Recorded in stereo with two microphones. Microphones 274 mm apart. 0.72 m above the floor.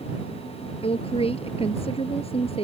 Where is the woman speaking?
20° left (ahead or behind).